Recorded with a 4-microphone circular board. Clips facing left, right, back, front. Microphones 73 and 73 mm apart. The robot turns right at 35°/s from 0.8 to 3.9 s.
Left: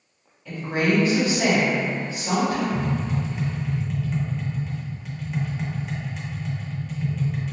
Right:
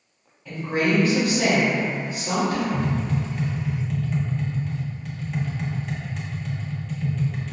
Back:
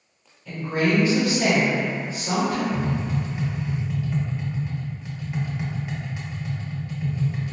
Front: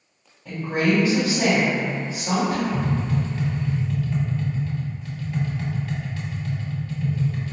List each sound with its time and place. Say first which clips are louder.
0.5 s a woman speaking: even, front 1 dB; 15° right, 1.9 m; by 2.6 s 50° left, 1.9 m
2.7 s tapping: right 1 dB, front 1 dB; 130° left, 0.8 m; by 7.5 s 175° left, 0.8 m